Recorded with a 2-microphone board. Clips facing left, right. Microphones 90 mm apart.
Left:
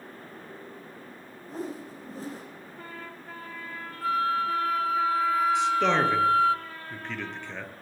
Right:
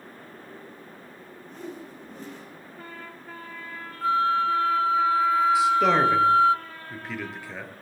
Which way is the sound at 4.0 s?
25° right (ahead or behind).